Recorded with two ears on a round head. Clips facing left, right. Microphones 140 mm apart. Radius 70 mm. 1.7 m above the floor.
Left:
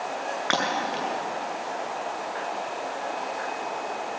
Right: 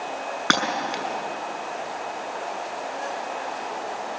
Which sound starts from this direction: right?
Breaking glass, at 0.5 s.